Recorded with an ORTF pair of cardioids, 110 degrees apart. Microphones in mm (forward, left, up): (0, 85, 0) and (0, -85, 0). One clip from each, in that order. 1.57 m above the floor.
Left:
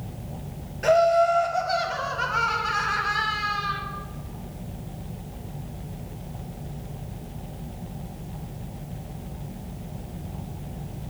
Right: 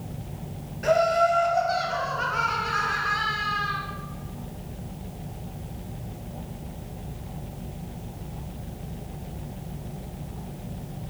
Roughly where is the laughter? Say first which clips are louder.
Left 2 dB; ahead left.